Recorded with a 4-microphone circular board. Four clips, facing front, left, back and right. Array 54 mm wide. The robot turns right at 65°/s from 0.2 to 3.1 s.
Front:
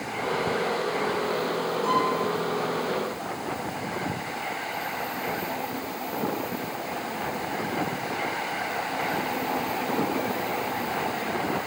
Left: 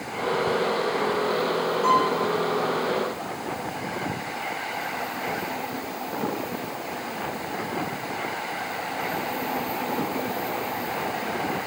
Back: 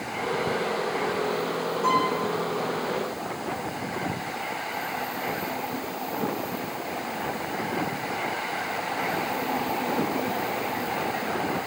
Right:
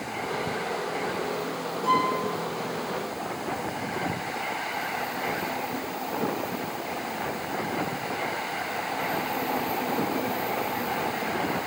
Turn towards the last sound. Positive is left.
turn(degrees=-145)